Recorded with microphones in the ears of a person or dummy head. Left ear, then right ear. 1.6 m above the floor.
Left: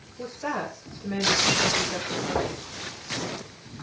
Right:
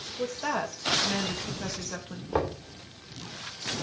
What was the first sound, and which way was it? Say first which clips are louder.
A woman speaking: even; 45° right (ahead or behind).